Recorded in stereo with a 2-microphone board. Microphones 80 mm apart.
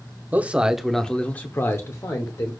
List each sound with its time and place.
0.3 s a man speaking: 25° right (ahead or behind), 0.7 m; by 2.5 s 45° left (ahead or behind), 1.1 m